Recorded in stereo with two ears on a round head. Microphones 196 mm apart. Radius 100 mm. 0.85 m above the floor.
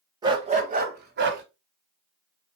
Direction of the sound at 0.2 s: 20° right (ahead or behind).